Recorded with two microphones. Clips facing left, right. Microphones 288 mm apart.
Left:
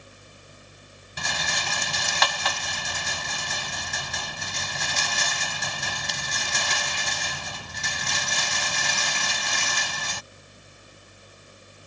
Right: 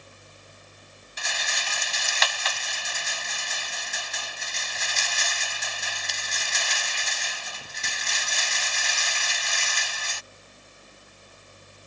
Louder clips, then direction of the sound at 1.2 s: Left 5 dB; 65° left (ahead or behind).